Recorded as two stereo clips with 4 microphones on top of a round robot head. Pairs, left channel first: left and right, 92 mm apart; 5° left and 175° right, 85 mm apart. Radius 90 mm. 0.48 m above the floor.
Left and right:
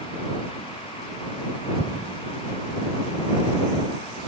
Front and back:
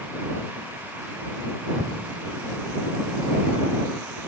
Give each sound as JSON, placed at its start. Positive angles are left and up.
{"t": 1.8, "sound": "an explosion", "azimuth_deg": -130}